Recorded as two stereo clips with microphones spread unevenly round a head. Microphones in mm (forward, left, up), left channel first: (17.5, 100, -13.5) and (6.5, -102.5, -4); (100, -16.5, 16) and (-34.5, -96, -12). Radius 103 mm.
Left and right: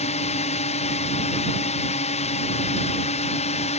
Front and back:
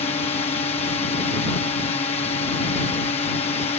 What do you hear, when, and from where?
0.0 s a drone: 70° left